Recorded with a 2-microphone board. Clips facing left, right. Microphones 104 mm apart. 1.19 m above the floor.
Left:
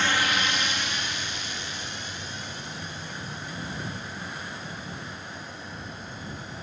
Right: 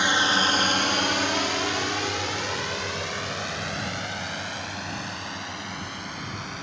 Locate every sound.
0.0 s a drone: 15° right (ahead or behind); by 6.6 s 65° right (ahead or behind)